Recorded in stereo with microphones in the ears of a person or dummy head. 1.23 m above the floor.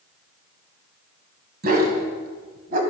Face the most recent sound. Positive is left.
turn(degrees=-55)  # may be behind; listen again after turning